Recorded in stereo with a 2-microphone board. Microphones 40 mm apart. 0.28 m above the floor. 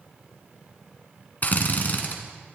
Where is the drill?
45° left (ahead or behind), 2.5 m.